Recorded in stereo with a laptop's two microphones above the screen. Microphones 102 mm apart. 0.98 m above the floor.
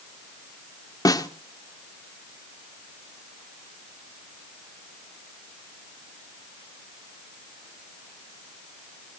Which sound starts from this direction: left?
A snare drum, at 1.1 s.